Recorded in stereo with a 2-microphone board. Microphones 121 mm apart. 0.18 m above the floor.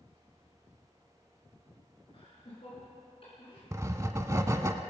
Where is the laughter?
50° left (ahead or behind), 3 m.